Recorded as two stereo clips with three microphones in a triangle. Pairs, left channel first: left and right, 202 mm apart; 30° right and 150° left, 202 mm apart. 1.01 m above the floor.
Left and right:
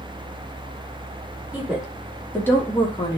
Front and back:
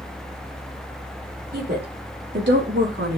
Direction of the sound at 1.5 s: 170° right.